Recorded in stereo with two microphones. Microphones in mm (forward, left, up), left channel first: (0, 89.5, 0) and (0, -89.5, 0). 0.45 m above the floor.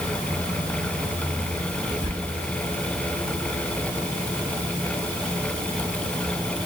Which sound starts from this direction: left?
Whispering, at 2.0 s.